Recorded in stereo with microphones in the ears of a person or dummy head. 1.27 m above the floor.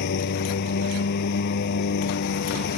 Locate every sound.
0.0 s a lawn mower: 60° left (ahead or behind)